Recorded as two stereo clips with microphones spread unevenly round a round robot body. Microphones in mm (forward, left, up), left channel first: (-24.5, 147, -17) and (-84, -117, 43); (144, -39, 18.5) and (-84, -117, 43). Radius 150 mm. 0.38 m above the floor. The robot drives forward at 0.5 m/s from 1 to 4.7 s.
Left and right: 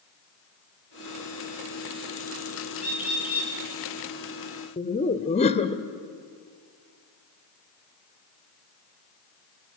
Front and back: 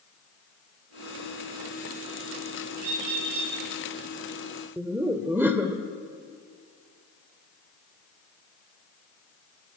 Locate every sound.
2.8 s a bird: 170° left, 6 m; by 3.5 s 175° left, 6.5 m
4.8 s laughter: 115° left, 1.1 m